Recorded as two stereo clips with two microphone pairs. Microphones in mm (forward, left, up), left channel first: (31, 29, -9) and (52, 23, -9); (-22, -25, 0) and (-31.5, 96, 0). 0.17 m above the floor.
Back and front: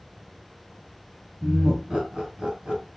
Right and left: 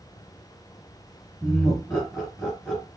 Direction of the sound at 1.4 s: 5° right.